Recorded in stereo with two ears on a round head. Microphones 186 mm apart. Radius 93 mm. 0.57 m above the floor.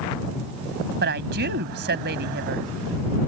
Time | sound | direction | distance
1.0 | a woman speaking | 55° right (ahead or behind) | ?